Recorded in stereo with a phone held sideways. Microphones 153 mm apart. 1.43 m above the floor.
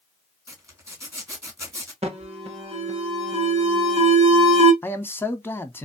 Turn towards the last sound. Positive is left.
turn(degrees=15)  # may be behind; listen again after turning